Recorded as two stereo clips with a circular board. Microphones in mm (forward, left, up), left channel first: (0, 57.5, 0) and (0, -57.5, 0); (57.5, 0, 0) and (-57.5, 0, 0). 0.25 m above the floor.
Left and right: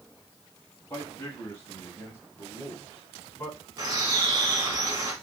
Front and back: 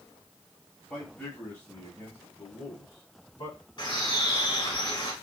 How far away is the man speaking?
About 1.6 m.